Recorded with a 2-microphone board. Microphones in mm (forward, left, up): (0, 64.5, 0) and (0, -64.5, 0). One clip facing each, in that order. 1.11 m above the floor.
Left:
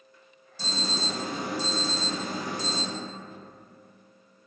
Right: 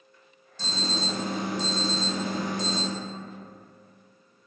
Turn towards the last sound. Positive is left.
turn(degrees=10)  # may be behind; listen again after turning